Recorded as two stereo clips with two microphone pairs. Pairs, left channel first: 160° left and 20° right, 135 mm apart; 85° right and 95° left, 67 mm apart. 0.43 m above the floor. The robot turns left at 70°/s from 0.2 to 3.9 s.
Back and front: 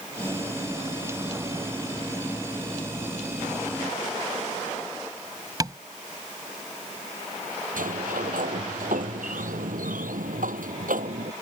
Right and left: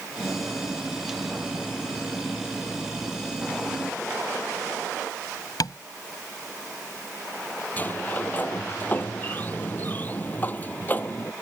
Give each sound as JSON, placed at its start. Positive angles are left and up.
{"t": 5.6, "sound": "tapping", "azimuth_deg": -80}
{"t": 7.8, "sound": "a sliding door", "azimuth_deg": -20}